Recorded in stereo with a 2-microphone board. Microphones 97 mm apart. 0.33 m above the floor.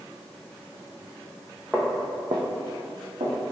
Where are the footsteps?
5° left (ahead or behind), 0.8 m; by 3.3 s 65° right (ahead or behind), 1.6 m.